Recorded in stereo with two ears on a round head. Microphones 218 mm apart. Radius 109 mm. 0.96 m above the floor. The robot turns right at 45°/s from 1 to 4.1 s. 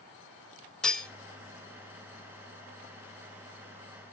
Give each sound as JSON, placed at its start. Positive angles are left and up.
{"t": 0.8, "sound": "cutlery clinking", "side_deg": 5, "distance_m": 1.5}